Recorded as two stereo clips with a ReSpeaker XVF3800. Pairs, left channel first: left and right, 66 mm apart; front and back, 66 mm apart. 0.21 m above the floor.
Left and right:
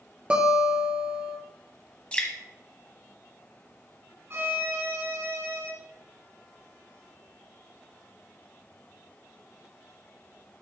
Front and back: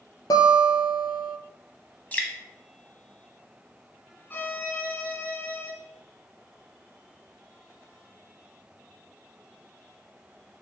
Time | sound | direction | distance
0.3 | a guitar | 15° right | 1.3 m
2.1 | dripping | 40° left | 1.2 m
4.3 | a violin | 55° right | 0.9 m